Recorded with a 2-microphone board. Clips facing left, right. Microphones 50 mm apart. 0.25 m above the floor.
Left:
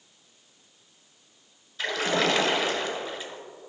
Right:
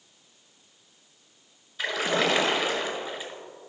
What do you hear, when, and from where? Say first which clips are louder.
1.8 s a splash: even; 15° right (ahead or behind), 1.3 m